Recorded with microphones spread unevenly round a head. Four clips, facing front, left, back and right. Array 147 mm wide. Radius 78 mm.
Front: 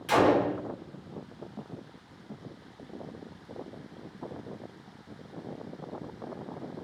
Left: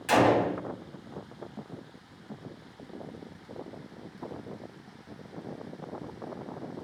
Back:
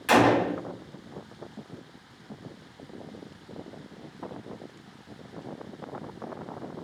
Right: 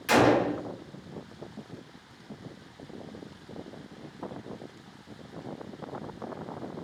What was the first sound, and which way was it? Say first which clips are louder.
A gunshot: right 1 dB, back 2 dB; straight behind.